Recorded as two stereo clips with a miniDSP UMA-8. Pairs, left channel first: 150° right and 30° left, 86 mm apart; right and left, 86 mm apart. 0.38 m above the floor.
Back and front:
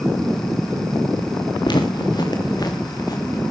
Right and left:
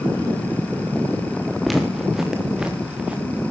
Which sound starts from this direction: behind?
Footsteps, at 1.6 s.